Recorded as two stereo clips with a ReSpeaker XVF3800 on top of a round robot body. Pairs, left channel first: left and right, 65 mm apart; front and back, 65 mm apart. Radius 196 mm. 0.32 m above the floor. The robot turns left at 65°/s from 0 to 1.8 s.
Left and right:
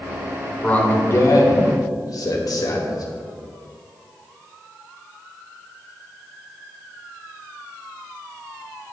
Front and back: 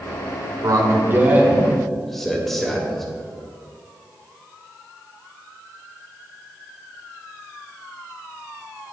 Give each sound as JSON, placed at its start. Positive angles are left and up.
{"t": 0.6, "sound": "a man speaking", "azimuth_deg": 160, "distance_m": 1.9}